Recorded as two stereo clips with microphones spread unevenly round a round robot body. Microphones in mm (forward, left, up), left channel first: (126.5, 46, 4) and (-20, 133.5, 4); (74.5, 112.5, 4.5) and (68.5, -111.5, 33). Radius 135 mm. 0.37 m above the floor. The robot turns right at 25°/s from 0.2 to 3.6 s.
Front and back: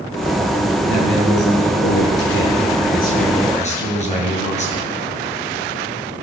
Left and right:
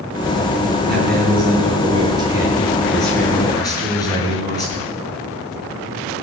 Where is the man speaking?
50° right, 8 m; by 4.9 s 15° left, 8 m.